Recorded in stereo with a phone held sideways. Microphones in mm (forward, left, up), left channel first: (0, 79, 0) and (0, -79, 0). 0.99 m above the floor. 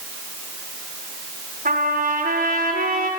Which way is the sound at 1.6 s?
65° right (ahead or behind).